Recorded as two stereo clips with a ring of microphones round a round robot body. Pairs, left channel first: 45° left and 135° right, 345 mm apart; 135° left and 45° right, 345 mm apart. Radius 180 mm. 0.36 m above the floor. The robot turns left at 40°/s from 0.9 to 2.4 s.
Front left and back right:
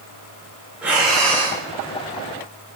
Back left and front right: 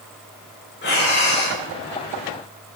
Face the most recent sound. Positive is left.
turn(degrees=85)